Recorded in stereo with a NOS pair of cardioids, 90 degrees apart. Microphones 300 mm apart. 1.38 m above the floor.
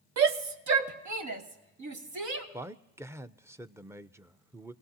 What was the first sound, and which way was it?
A shout, 60° right.